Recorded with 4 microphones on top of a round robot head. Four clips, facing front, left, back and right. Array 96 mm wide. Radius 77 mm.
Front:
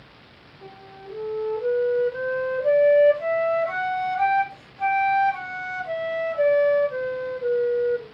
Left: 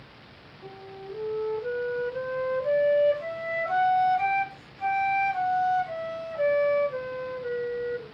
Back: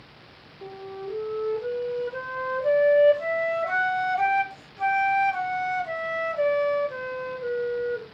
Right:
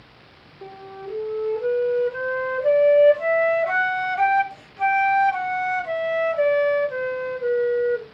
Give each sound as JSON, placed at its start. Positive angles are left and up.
{"t": 0.6, "sound": "a flute", "azimuth_deg": -100, "distance_m": 5.0}